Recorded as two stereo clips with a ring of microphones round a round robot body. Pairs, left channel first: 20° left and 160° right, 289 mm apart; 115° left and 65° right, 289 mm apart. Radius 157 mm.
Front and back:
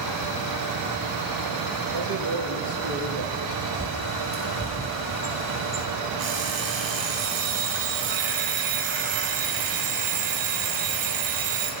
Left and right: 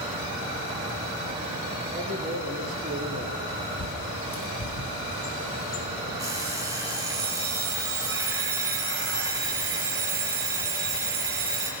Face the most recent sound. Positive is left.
turn(degrees=-145)